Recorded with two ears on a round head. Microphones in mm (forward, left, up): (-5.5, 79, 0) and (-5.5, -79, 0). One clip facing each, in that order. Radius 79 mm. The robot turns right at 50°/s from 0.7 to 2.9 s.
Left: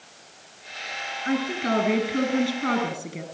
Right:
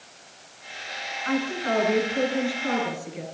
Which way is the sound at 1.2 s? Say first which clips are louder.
Left 1 dB; 30° left.